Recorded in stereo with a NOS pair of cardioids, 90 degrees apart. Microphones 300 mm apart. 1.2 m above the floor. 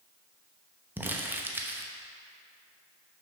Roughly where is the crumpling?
Ahead.